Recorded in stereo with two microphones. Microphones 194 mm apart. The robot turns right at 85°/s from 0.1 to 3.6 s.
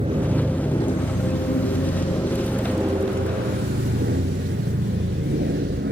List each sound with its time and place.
0.0 s an aircraft: 35° right; by 5.9 s 95° right